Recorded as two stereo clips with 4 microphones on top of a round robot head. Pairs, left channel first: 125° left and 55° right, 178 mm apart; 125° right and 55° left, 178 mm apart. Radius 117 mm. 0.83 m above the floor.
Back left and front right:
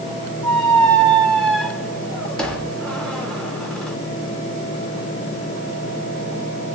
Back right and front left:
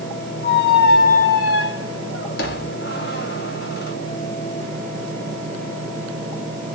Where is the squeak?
150° right, 0.7 m.